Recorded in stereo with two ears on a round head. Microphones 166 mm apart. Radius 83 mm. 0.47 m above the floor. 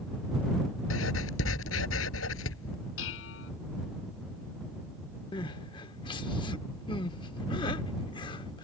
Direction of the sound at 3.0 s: 80° left.